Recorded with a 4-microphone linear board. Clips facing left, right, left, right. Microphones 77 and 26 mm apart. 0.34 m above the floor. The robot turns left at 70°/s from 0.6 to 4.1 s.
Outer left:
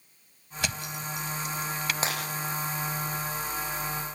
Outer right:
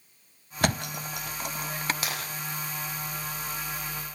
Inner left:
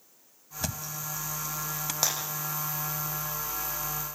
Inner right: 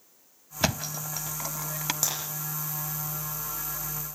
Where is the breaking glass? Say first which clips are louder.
Outer left 3 dB, inner left 4 dB; 30° left (ahead or behind), 8.5 m; by 2.2 s 20° left (ahead or behind), 8.5 m.